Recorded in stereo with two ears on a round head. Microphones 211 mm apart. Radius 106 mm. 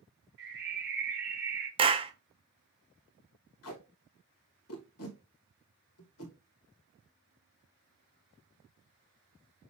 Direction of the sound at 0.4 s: 45° right (ahead or behind).